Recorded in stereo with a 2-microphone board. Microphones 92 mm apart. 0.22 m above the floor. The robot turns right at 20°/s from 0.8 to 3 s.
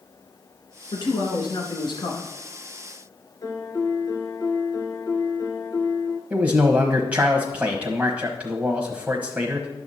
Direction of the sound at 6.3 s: 15° right (ahead or behind).